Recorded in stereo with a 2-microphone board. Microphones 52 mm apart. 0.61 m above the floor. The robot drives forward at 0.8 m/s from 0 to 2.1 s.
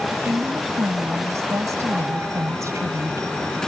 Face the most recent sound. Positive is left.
turn(degrees=-75)  # may be behind; listen again after turning